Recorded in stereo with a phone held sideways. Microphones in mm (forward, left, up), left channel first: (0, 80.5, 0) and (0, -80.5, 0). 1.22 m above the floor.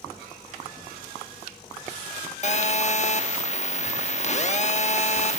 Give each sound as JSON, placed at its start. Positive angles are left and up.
{"t": 2.4, "sound": "a phone buzzing", "side_deg": 45, "distance_m": 1.1}